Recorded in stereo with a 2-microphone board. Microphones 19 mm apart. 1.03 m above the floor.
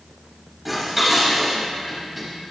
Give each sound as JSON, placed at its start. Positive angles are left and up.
{"t": 0.7, "sound": "dishes clattering", "side_deg": -10, "distance_m": 4.5}